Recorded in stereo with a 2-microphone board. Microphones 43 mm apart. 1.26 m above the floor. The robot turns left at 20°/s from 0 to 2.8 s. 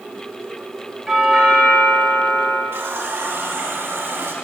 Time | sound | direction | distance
1.1 | a doorbell | 175° right | 3.5 m
2.7 | a running tap | 65° right (ahead or behind) | 1.8 m